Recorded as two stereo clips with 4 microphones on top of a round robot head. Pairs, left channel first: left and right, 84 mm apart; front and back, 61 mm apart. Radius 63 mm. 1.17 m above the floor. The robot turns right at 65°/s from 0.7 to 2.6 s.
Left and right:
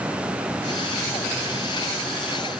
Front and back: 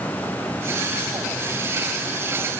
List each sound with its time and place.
Only background noise.